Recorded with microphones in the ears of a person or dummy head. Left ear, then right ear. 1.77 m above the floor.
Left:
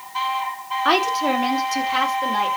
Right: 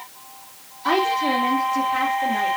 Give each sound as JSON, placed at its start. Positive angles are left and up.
{"t": 0.8, "sound": "a woman speaking", "side_deg": 60, "distance_m": 3.0}